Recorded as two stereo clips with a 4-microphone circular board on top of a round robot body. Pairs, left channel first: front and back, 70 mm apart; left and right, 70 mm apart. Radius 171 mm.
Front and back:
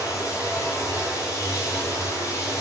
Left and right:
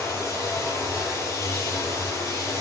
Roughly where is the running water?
Ahead left.